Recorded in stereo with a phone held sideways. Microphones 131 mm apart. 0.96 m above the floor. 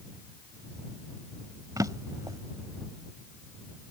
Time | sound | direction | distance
1.8 | a drawer | 30° right (ahead or behind) | ?